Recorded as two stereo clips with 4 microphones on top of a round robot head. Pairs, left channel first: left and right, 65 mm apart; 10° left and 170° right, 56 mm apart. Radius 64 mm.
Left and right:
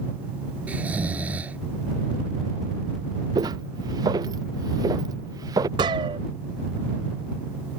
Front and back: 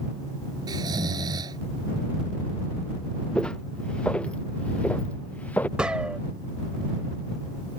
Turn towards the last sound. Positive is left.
turn(degrees=-90)